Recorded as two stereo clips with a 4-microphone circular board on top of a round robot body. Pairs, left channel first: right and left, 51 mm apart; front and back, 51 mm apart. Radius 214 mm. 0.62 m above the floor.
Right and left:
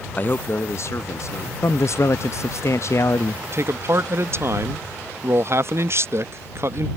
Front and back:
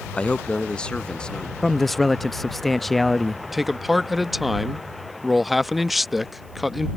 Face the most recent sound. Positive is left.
turn(degrees=90)